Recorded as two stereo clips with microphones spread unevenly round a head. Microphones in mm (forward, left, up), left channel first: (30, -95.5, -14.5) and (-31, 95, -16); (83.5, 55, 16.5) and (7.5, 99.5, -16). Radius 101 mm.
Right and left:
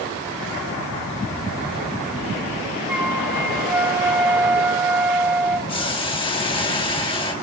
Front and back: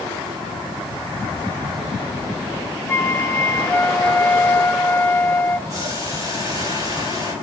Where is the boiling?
140° right, 1.9 m.